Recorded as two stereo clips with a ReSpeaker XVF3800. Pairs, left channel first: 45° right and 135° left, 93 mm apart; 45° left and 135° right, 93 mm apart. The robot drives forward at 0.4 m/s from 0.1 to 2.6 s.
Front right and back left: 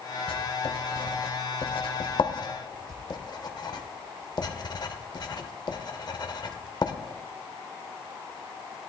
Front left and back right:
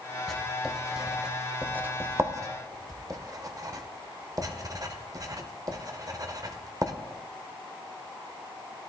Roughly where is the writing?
Ahead right.